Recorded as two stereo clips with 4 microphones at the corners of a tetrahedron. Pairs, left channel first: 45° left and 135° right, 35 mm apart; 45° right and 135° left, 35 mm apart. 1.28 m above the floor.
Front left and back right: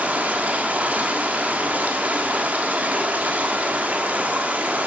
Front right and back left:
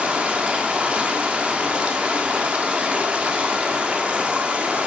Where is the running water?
175° right, 1.4 m.